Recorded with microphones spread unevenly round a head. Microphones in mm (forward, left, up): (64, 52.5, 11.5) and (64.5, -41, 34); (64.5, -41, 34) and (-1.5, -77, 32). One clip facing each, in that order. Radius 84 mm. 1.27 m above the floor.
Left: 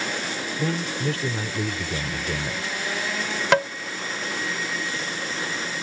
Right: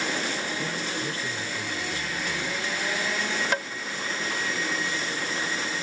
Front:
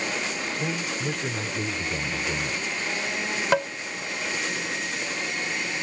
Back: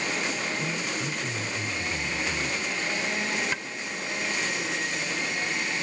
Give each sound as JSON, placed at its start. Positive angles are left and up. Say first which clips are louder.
{"t": 0.6, "sound": "a man speaking", "louder": "left 5 dB, front 2 dB", "azimuth_deg": 95}
{"t": 3.5, "sound": "tapping", "louder": "left 13 dB, front 11 dB", "azimuth_deg": 80}